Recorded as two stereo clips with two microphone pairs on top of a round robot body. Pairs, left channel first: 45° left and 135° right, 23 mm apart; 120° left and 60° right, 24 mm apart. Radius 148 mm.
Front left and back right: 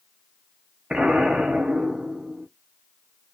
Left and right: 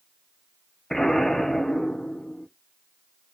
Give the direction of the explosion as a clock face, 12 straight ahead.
6 o'clock.